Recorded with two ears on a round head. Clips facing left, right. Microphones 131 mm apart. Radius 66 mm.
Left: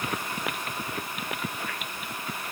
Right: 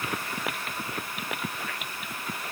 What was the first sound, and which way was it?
Only background noise.